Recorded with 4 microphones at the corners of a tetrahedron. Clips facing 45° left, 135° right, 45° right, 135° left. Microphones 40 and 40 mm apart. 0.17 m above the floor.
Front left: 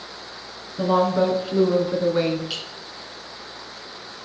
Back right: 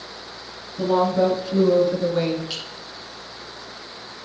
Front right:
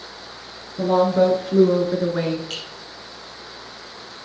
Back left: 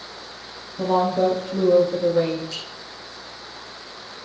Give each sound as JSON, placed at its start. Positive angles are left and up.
{"t": 0.8, "sound": "a woman speaking", "azimuth_deg": -10, "distance_m": 2.5}
{"t": 2.5, "sound": "a clink", "azimuth_deg": -40, "distance_m": 3.5}